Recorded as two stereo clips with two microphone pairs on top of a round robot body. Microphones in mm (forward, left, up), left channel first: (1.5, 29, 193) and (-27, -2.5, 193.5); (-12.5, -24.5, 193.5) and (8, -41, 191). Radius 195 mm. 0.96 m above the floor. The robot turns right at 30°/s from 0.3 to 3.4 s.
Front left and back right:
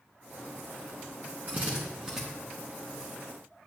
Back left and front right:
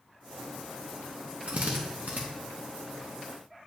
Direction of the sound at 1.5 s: 75° right.